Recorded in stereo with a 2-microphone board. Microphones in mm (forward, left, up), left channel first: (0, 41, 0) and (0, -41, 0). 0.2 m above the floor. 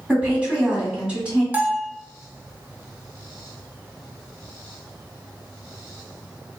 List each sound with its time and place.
0.1 s a woman speaking: 15° right (ahead or behind), 1.6 m
1.5 s a bell: 20° right (ahead or behind), 0.5 m